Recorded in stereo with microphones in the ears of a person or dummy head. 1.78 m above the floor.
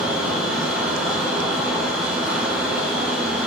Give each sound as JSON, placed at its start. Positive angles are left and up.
{"t": 0.0, "sound": "a machine running", "side_deg": -15, "distance_m": 0.8}